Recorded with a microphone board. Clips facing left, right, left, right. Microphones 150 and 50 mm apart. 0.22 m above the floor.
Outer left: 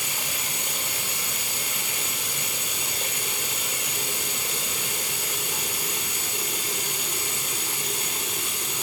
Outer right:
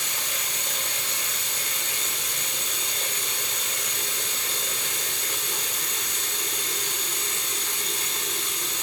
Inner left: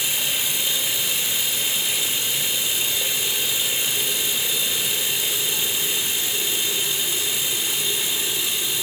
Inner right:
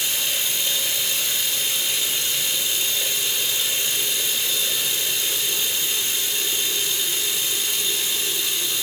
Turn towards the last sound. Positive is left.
turn(degrees=10)  # may be behind; listen again after turning